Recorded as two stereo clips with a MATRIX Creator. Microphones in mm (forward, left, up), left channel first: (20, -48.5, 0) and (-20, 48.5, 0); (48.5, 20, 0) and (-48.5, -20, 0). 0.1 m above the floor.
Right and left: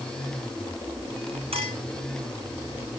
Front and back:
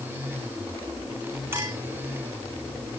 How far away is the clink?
About 6.5 m.